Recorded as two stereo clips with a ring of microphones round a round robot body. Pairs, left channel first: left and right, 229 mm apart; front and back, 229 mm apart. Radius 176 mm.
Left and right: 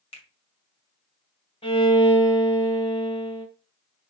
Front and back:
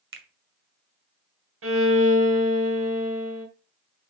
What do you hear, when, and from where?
0.1 s a finger snap: 160° left, 2.0 m
1.6 s a violin: 160° left, 2.5 m